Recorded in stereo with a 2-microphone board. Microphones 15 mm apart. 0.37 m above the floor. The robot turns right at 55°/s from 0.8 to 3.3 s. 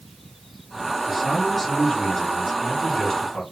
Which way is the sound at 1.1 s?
Straight ahead.